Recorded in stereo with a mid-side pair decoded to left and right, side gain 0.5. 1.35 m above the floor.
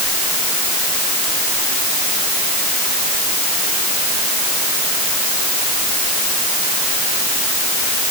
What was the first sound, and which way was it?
Only background noise.